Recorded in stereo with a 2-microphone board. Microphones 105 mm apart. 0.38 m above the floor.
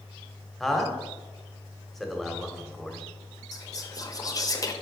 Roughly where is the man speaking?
Centre.